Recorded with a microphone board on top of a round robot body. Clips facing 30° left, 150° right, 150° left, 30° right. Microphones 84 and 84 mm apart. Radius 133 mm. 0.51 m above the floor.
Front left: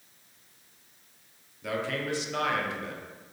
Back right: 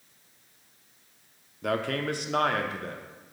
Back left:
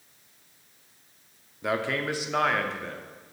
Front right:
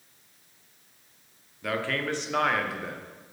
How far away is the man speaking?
About 1.1 m.